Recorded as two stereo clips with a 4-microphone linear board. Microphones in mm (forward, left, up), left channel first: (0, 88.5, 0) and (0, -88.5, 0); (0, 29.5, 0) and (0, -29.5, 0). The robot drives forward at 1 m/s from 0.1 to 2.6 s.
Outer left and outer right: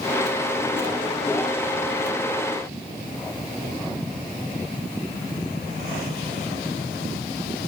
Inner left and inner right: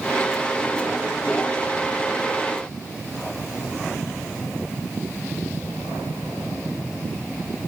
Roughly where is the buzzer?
I don't hear a buzzer.